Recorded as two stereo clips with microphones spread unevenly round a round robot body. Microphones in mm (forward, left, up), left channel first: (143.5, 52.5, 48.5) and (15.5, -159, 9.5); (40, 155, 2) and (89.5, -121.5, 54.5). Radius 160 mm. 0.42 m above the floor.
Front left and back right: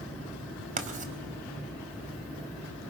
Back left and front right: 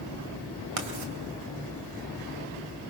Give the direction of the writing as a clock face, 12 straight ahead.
2 o'clock.